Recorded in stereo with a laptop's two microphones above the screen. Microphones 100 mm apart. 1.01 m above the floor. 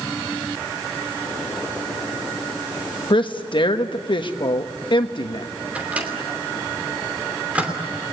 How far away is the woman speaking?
About 1.3 m.